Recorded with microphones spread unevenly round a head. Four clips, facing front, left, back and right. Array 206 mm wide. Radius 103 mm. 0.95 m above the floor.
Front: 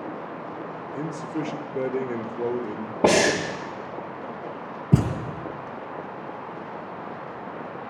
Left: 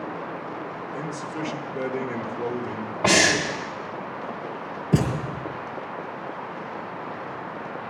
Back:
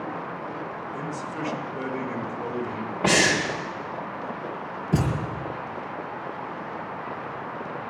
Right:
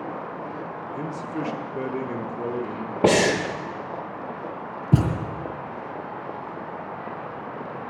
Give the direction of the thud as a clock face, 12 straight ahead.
1 o'clock.